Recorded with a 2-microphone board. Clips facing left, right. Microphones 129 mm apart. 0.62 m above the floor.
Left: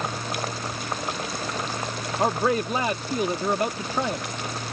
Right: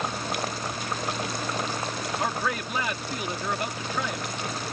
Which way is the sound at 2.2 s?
35° left (ahead or behind).